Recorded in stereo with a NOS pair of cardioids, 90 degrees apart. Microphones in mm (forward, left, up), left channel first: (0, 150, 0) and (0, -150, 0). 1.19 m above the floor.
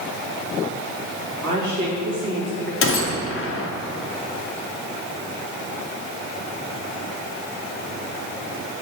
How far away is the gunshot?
About 0.6 m.